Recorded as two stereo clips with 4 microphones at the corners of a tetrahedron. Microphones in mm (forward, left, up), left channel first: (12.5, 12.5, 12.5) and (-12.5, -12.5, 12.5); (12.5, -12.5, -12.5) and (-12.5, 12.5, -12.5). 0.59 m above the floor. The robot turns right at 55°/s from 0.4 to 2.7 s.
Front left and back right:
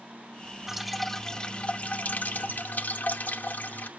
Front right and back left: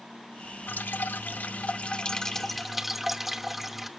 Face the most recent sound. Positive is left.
turn(degrees=55)